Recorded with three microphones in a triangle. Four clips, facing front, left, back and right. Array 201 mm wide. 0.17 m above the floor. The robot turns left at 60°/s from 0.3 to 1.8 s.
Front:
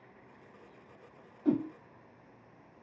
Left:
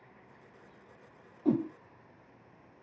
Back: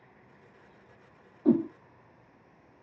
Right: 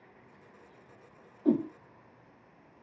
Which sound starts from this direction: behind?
A whoosh, at 1.4 s.